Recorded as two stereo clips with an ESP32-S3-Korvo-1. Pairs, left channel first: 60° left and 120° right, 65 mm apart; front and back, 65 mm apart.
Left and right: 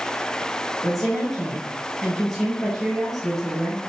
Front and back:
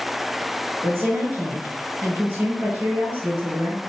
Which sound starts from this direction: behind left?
A woman speaking, at 0.8 s.